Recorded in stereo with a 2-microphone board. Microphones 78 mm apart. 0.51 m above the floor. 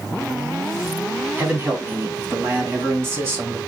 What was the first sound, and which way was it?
A man speaking, 30° right (ahead or behind).